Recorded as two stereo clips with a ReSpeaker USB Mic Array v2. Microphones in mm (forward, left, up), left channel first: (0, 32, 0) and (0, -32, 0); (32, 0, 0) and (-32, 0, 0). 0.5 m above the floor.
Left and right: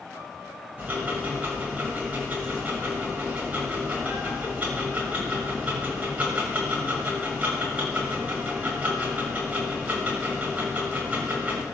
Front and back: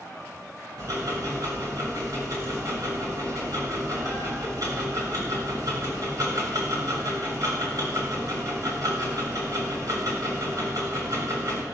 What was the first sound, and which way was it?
Ticking, 155° right.